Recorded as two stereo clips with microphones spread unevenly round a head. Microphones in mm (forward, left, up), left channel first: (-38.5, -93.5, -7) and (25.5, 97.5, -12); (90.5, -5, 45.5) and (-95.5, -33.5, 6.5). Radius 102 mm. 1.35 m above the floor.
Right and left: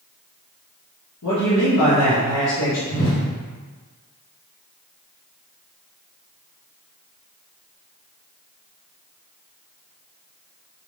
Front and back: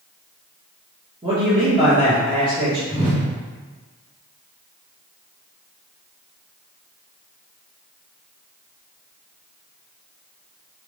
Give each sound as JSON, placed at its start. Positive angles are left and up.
{"t": 1.2, "sound": "a man speaking", "azimuth_deg": -105, "distance_m": 1.5}
{"t": 2.9, "sound": "a whoosh", "azimuth_deg": -120, "distance_m": 1.4}